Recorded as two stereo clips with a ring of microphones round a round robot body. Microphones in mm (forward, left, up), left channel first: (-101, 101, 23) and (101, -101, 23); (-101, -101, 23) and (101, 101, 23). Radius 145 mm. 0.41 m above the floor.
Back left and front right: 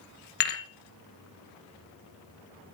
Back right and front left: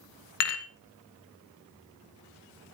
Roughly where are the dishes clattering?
Behind.